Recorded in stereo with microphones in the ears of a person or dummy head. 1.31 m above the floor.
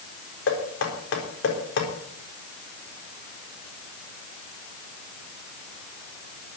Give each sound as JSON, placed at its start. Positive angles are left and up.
{"t": 0.5, "sound": "knocking", "side_deg": 70, "distance_m": 4.0}